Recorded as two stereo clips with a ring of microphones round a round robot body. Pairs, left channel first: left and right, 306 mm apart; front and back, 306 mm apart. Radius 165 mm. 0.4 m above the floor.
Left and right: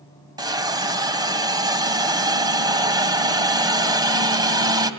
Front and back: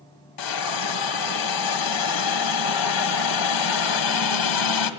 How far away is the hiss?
About 1.9 m.